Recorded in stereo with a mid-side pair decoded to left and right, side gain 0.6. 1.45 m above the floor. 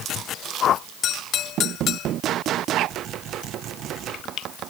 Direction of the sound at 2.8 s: 60° right.